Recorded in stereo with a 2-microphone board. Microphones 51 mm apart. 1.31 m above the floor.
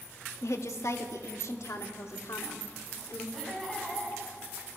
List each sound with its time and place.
0.4 s a woman speaking: 70° left (ahead or behind), 2 m
3.3 s laughter: 10° left (ahead or behind), 9.5 m